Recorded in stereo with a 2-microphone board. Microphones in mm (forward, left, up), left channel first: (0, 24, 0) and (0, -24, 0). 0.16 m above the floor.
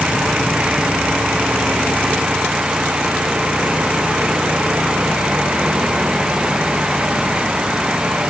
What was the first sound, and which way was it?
Only background noise.